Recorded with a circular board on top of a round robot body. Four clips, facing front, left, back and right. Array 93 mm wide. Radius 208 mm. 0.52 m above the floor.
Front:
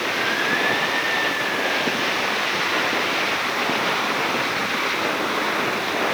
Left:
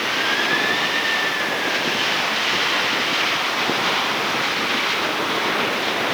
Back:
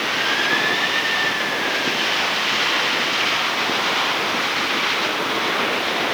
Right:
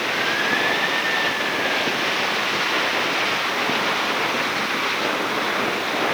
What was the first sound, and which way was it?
Only background noise.